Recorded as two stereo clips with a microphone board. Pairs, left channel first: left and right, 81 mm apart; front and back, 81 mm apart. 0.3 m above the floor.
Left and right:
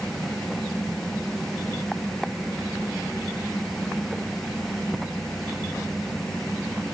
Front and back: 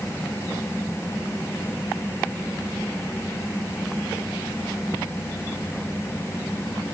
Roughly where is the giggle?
I don't hear a giggle.